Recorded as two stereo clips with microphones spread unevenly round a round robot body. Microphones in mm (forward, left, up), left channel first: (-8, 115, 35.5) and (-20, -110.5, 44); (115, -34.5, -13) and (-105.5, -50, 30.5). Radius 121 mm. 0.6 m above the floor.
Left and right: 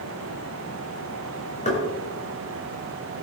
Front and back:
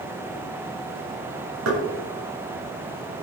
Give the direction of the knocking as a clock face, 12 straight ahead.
7 o'clock.